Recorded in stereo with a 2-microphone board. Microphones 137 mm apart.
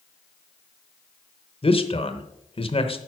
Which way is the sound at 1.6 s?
45° left (ahead or behind).